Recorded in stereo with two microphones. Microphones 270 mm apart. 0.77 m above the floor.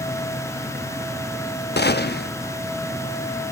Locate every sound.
1.8 s a gunshot: 40° left (ahead or behind), 0.8 m